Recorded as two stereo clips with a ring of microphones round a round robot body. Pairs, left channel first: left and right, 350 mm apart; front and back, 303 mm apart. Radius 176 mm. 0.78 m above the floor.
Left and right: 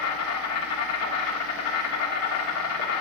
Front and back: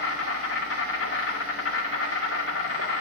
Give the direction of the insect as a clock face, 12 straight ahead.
11 o'clock.